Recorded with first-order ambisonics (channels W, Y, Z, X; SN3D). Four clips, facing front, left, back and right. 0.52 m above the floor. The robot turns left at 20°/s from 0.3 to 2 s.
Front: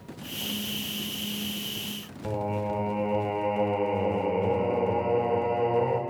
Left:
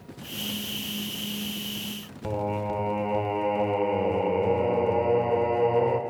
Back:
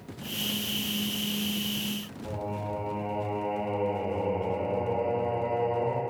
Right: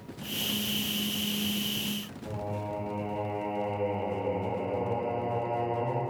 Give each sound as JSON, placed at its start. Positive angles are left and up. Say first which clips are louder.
{"t": 2.2, "sound": "singing", "louder": "left 9 dB, front 6 dB", "azimuth_deg": 65, "distance_m": 0.8}